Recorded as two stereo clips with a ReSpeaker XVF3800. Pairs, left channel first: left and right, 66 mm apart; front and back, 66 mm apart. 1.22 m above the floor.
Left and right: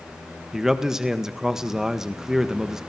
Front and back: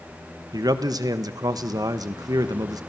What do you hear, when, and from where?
0.5 s a man speaking: 175° right, 1.4 m